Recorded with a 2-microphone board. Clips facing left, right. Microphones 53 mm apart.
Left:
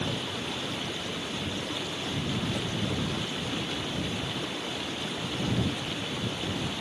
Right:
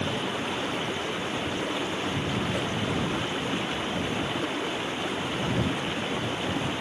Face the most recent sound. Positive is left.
turn(degrees=-30)  # may be behind; listen again after turning